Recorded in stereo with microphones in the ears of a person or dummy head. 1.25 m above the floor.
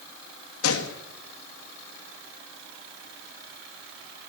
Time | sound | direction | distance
0.6 | a gunshot | 80° left | 1.6 m